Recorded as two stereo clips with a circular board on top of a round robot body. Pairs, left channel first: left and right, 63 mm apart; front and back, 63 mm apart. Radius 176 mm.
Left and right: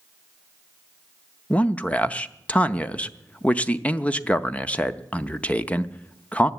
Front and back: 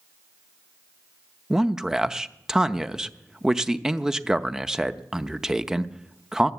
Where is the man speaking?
115° left, 0.9 m.